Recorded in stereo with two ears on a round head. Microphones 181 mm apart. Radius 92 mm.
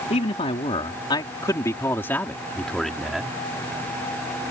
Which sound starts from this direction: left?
A man speaking, at 0.1 s.